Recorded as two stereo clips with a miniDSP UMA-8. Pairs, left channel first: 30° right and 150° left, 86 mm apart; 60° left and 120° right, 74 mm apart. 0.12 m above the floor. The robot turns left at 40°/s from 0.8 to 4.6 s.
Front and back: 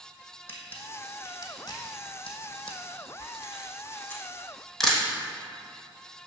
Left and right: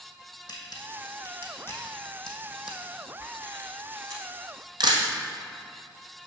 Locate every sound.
0.5 s a camera shutter: 35° left, 1.5 m; by 5.0 s 115° right, 1.5 m